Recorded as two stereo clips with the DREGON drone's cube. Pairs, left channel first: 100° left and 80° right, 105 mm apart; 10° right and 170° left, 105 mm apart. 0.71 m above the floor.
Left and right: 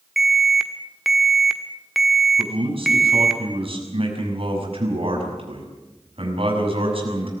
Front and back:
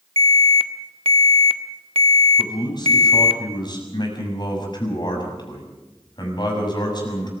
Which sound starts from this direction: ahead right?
A man speaking, at 2.4 s.